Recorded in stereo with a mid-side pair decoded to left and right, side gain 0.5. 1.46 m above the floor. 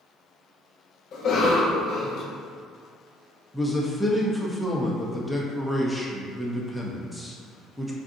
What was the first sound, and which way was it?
A cough, 60° left.